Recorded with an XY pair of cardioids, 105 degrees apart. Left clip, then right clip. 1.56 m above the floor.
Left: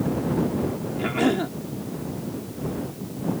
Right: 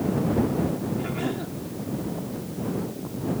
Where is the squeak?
I don't hear a squeak.